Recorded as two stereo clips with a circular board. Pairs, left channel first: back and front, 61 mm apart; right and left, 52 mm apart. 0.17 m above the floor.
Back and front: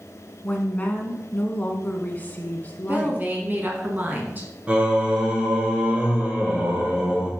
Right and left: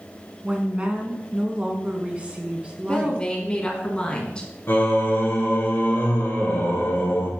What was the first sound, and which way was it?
A woman speaking, 140° left.